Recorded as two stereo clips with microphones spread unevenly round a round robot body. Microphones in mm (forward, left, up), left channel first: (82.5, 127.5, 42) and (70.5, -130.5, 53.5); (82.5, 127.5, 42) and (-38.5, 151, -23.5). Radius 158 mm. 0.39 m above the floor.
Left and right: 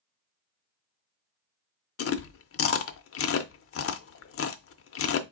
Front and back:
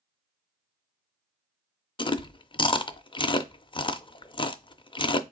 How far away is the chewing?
About 0.6 m.